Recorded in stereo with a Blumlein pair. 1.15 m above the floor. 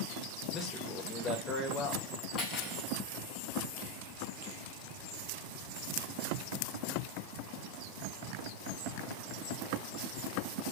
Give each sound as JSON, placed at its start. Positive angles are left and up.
{"t": 0.5, "sound": "a man speaking", "azimuth_deg": 15, "distance_m": 1.1}
{"t": 2.4, "sound": "cutlery clinking", "azimuth_deg": 25, "distance_m": 1.4}